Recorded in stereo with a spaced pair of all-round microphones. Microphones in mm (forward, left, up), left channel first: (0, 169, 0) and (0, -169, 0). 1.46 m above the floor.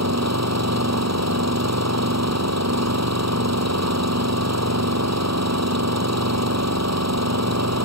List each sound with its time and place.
0.0 s an engine running: 50° right (ahead or behind)